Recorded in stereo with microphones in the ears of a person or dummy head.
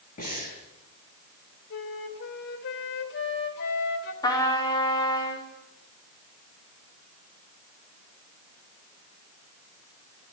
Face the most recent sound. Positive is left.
turn(degrees=20)  # may be behind; listen again after turning